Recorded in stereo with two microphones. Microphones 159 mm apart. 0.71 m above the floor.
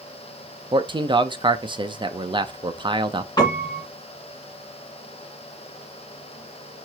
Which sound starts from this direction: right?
A man speaking, at 0.7 s.